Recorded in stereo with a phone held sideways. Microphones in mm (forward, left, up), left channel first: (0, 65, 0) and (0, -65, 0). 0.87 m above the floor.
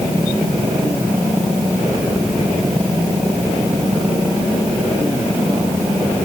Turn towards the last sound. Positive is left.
No sound to turn to.